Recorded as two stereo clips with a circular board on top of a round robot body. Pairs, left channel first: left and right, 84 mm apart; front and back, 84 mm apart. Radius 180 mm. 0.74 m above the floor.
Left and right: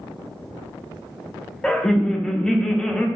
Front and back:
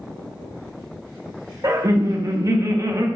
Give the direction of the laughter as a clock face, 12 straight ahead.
6 o'clock.